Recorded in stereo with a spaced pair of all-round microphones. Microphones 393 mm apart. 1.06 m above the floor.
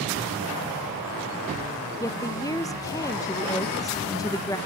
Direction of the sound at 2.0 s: 10° left (ahead or behind).